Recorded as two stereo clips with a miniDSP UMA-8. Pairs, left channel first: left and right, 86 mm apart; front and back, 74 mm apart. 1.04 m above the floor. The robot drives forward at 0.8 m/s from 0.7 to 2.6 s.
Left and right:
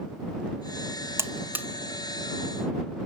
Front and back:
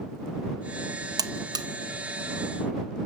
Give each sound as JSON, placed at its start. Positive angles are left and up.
{"t": 1.2, "sound": "a buzzer", "azimuth_deg": -150, "distance_m": 0.8}